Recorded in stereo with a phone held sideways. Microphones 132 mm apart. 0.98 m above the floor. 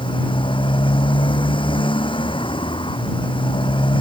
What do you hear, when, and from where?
0.0 s a motorcycle: 40° left (ahead or behind)